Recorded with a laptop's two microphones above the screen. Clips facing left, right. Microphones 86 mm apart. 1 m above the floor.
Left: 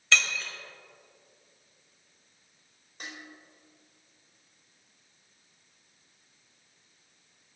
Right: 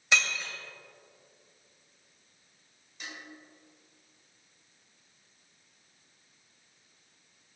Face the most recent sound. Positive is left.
turn(degrees=45)  # may be behind; listen again after turning